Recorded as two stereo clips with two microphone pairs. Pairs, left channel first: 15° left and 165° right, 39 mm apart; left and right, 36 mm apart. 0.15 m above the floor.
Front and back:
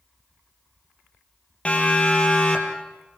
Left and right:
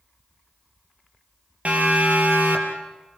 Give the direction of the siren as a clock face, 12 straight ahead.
1 o'clock.